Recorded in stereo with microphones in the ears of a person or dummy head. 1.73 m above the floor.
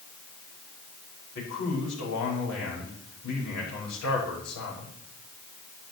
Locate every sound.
1.4 s a man speaking: 85° left, 6 m